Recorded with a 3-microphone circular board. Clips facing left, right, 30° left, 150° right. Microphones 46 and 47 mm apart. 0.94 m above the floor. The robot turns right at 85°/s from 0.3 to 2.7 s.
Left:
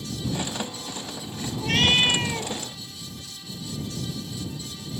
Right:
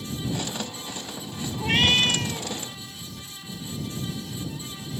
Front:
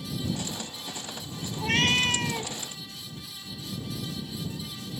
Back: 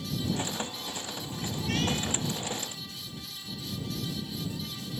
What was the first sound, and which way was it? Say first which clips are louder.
A cat meowing: even, front 7 dB; 25° right.